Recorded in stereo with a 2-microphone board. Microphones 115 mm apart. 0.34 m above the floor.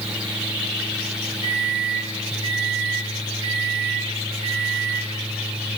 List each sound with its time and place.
1.4 s a microwave: 60° left (ahead or behind), 3.5 m